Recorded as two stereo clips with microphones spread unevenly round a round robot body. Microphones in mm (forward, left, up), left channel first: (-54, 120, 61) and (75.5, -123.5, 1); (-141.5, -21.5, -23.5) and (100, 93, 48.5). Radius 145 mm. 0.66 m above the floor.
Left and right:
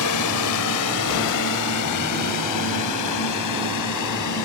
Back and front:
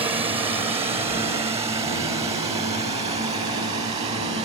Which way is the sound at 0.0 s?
100° left.